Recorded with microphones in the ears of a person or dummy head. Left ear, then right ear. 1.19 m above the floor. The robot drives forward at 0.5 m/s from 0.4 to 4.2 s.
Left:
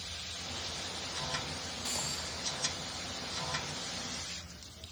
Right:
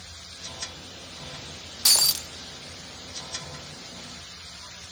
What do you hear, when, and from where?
1.9 s breaking glass: 55° right (ahead or behind), 0.6 m; by 2.3 s 60° right (ahead or behind), 0.6 m